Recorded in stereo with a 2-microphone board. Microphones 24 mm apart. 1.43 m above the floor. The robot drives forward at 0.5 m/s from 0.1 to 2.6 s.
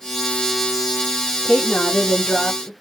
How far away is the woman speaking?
About 0.8 m.